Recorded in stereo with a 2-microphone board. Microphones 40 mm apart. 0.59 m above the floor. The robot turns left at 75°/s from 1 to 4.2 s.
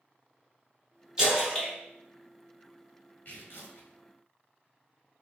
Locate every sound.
1.2 s a splash: 20° right (ahead or behind), 1.7 m; by 1.7 s 15° left (ahead or behind), 1.7 m
3.2 s tearing paper: 130° left, 1.3 m; by 3.9 s 80° left, 1.3 m